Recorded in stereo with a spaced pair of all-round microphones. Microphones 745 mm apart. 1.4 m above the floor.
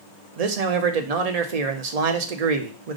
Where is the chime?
I don't hear a chime.